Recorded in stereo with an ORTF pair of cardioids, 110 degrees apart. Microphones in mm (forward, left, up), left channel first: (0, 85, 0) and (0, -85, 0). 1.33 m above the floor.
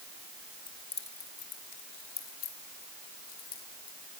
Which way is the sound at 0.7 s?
25° left.